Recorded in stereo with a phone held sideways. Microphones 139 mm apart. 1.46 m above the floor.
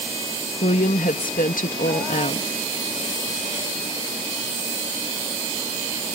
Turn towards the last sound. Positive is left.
turn(degrees=80)